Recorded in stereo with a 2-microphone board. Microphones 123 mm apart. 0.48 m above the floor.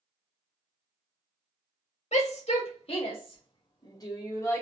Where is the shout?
65° left (ahead or behind), 2 m; by 4.6 s 20° left (ahead or behind), 1.8 m.